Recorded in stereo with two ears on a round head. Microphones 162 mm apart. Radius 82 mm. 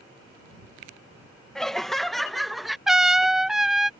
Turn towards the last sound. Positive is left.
turn(degrees=0)  # may be behind; listen again after turning